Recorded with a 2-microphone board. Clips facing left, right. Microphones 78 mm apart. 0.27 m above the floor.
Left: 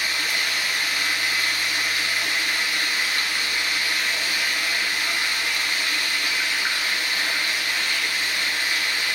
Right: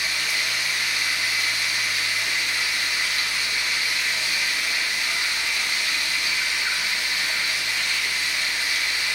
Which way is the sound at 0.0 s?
50° left (ahead or behind).